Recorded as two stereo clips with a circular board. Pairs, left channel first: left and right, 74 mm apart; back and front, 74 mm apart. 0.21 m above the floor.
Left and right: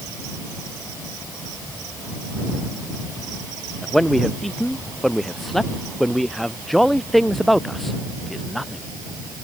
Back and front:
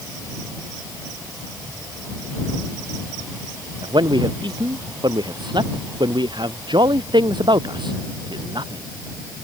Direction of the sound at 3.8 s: Straight ahead.